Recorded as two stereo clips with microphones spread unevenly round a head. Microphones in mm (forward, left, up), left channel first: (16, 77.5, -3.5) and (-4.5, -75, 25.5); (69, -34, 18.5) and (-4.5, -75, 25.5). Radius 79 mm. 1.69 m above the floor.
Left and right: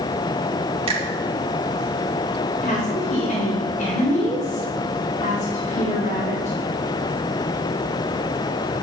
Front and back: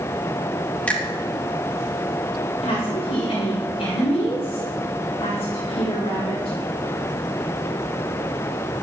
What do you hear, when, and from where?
0.9 s a finger snap: 45° right, 3.5 m
2.6 s a woman speaking: 40° left, 5 m